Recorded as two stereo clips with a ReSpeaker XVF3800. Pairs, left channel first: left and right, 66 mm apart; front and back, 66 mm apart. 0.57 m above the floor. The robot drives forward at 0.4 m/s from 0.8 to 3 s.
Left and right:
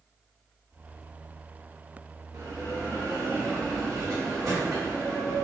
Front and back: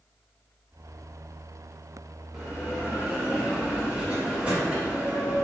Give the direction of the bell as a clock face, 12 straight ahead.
3 o'clock.